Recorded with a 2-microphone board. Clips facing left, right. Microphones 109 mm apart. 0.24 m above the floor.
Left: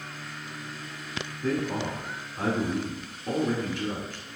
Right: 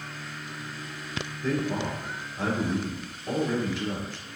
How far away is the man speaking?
About 2.0 m.